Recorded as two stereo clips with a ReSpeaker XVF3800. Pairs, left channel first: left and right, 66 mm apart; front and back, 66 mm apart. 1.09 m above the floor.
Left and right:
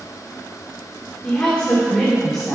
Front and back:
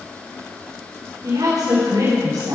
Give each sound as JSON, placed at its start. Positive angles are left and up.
{"t": 1.2, "sound": "a woman speaking", "azimuth_deg": 165, "distance_m": 4.0}